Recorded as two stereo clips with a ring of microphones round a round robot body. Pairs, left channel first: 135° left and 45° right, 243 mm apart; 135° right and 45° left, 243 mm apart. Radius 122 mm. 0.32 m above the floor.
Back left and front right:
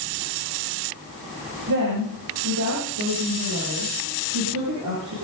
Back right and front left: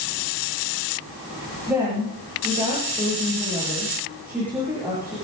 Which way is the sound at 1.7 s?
40° right.